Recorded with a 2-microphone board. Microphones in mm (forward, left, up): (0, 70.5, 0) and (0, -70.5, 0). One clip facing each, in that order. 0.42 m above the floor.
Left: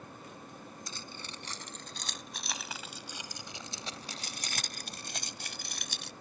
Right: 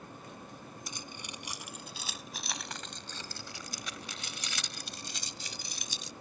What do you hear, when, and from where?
0.9 s keys jangling: 20° right (ahead or behind); by 6.1 s 75° left (ahead or behind)